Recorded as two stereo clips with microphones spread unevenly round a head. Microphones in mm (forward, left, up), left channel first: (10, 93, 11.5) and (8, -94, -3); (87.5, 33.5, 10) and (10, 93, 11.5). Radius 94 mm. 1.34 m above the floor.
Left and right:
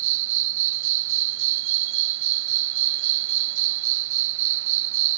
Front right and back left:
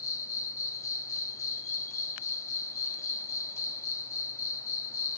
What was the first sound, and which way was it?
An insect, 110° right.